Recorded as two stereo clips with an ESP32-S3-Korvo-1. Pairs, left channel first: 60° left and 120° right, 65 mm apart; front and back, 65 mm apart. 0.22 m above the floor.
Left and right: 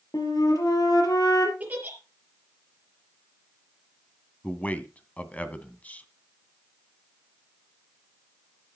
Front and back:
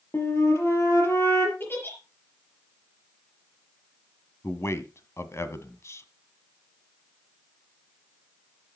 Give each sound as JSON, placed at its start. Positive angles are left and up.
{"t": 0.1, "sound": "a flute", "azimuth_deg": 45, "distance_m": 4.0}
{"t": 1.6, "sound": "a giggle", "azimuth_deg": -55, "distance_m": 4.0}
{"t": 4.4, "sound": "a man speaking", "azimuth_deg": 5, "distance_m": 1.5}